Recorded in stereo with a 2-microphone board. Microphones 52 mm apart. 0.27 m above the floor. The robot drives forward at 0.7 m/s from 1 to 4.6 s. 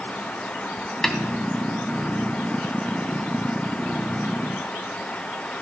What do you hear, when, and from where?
1.0 s a snare drum: 10° left (ahead or behind), 1.5 m